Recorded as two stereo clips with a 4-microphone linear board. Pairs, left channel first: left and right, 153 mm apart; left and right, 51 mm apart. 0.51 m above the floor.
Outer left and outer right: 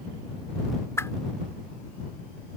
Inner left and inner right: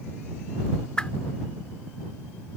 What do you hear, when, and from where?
1.0 s a whoosh: 15° left (ahead or behind)